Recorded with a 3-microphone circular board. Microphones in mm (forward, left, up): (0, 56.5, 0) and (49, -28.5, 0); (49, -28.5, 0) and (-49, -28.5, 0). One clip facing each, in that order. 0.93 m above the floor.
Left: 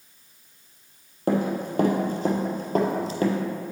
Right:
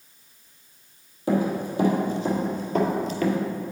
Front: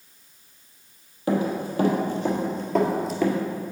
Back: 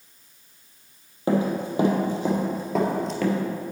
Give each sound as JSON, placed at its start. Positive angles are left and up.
{"t": 1.3, "sound": "running footsteps", "azimuth_deg": 120, "distance_m": 1.9}